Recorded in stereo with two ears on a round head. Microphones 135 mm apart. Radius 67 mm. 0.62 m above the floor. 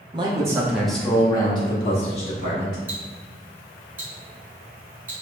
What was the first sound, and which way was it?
A man speaking, 30° right (ahead or behind).